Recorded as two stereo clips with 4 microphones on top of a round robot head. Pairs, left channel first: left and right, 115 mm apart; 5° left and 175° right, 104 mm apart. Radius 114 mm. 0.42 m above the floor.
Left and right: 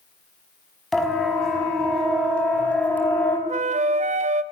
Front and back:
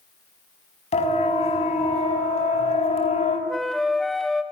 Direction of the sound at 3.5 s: 85° right.